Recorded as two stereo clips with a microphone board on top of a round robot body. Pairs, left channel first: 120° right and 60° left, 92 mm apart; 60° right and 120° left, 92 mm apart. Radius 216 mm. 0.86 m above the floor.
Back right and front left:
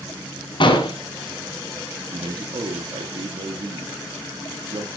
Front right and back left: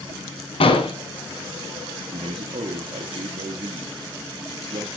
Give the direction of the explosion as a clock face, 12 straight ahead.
3 o'clock.